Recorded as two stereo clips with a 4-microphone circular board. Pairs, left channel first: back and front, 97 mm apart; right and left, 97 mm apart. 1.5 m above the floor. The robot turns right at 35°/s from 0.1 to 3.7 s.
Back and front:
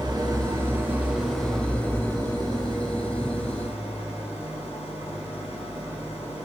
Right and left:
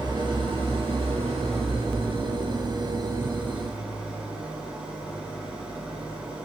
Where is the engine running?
45° left, 6 m; by 6.5 s 170° left, 6 m.